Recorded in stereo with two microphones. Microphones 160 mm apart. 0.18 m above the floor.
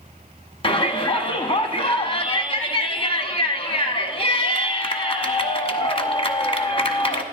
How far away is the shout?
About 1.1 m.